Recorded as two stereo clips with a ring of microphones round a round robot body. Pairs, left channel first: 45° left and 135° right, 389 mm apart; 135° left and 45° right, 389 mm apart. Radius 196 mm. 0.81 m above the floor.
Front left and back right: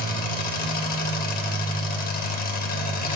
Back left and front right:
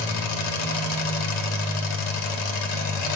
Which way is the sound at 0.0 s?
115° left.